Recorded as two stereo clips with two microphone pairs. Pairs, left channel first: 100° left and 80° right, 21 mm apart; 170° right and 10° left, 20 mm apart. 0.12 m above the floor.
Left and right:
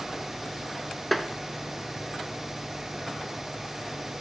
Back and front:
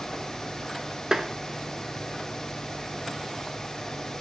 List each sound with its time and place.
1.1 s tapping: 15° left, 0.7 m